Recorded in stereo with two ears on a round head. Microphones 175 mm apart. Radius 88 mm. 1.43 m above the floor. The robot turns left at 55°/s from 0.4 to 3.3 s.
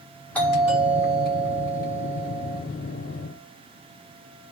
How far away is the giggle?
I don't hear a giggle.